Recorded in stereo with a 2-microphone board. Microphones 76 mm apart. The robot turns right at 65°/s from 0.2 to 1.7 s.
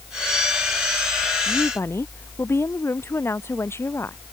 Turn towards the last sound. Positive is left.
turn(degrees=35)  # may be behind; listen again after turning